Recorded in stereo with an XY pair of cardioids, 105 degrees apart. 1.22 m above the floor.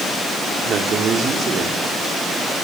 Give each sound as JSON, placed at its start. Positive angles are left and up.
{"t": 0.7, "sound": "a man speaking", "azimuth_deg": -60, "distance_m": 3.5}